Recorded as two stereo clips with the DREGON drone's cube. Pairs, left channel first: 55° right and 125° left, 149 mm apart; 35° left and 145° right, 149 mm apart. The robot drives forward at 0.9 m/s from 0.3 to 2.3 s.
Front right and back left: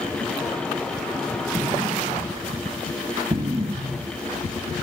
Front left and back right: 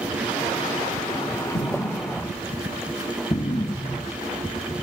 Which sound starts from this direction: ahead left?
An explosion, at 1.5 s.